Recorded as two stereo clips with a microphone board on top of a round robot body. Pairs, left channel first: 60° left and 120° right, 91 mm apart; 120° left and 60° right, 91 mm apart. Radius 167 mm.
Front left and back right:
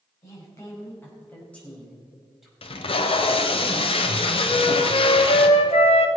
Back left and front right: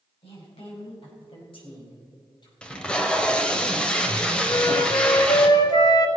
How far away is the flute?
About 1.0 m.